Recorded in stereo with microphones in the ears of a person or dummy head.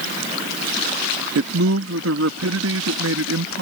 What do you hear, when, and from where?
1.4 s a man speaking: 75° right (ahead or behind)